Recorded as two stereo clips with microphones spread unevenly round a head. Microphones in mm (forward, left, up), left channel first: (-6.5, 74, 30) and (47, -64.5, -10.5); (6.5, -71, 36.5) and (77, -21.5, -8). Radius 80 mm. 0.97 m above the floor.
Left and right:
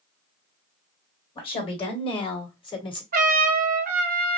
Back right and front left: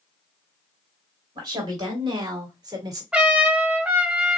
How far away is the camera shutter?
No camera shutter in this recording.